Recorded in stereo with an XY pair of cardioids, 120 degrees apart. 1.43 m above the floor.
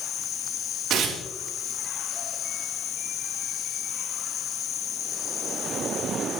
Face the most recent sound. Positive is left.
turn(degrees=-65)